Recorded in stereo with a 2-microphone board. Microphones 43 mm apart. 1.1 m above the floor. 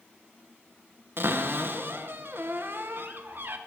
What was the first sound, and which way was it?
A cupboard door, 55° right (ahead or behind).